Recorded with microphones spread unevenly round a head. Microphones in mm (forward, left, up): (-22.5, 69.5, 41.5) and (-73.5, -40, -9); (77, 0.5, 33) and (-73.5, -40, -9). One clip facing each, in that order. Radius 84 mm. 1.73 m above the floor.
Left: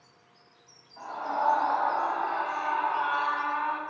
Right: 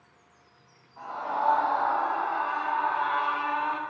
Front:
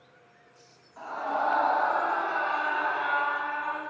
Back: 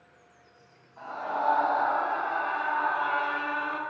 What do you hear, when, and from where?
1.0 s a scream: 10° left, 2.5 m; by 3.8 s 165° left, 0.7 m